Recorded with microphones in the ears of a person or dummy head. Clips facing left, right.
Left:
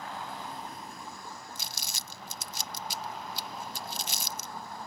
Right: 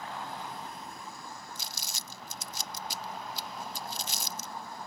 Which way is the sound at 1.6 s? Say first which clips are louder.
Left 1 dB; 60° left (ahead or behind).